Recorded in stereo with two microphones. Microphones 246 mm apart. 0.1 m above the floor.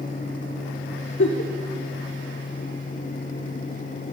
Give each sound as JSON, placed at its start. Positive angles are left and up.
{"t": 1.2, "sound": "a giggle", "side_deg": 80, "distance_m": 1.2}